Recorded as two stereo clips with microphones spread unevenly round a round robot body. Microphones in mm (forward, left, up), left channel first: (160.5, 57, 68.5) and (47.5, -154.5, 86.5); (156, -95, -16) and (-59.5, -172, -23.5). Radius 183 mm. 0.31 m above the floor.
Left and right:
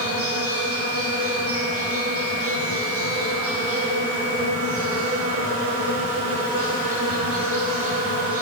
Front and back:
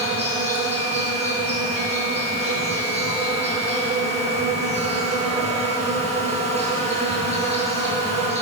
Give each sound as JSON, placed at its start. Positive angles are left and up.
{"t": 0.0, "sound": "an insect", "azimuth_deg": -100, "distance_m": 10.0}